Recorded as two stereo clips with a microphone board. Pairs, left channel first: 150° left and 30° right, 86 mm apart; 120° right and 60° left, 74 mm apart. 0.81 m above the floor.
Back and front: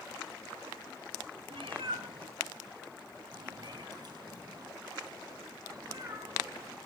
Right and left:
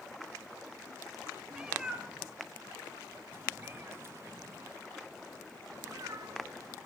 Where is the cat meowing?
25° right, 2.5 m; by 6.8 s 20° left, 5 m.